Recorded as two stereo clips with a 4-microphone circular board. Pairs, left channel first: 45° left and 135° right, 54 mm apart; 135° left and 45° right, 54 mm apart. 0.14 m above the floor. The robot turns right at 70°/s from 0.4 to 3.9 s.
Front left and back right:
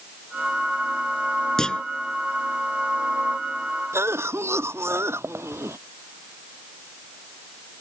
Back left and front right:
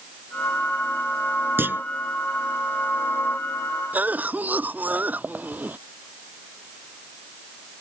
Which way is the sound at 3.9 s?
105° right.